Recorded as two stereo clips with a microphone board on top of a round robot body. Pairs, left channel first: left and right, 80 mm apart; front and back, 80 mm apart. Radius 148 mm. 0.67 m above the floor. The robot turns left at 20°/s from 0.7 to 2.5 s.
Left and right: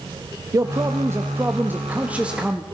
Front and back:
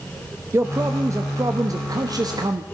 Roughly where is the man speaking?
Behind right.